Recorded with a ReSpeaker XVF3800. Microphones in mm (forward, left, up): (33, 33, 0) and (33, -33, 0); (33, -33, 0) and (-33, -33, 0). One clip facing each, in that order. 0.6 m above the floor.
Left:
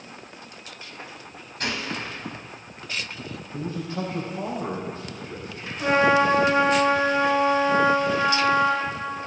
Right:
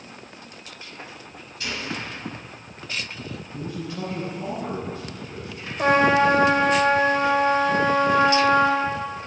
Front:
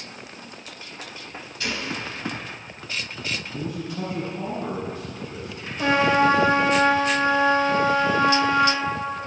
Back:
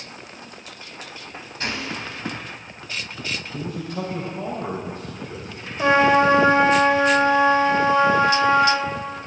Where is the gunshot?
130° left, 1.9 m.